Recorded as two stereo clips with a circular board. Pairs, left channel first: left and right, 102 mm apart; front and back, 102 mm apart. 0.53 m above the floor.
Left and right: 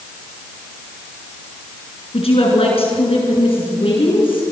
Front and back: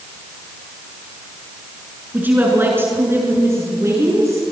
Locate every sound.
2.1 s a woman speaking: 110° left, 6.5 m; by 4.5 s 120° left, 7 m